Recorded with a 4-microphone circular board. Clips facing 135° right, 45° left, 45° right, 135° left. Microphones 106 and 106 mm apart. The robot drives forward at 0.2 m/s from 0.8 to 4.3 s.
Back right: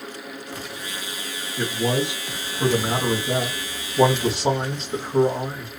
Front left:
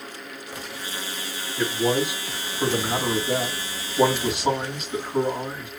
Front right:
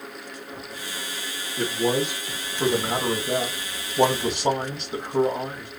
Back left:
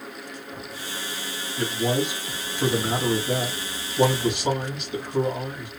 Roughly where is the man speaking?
Right.